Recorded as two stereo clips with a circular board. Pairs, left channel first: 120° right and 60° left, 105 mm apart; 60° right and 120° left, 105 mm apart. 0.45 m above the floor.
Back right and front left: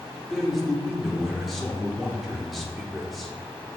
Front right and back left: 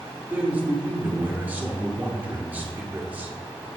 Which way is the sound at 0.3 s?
155° left.